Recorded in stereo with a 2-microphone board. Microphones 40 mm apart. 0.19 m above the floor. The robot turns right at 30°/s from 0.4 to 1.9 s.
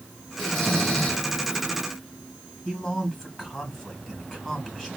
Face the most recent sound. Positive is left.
turn(degrees=20)  # may be behind; listen again after turning